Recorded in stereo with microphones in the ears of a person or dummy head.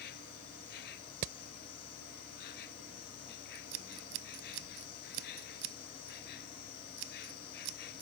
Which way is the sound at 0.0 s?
60° left (ahead or behind).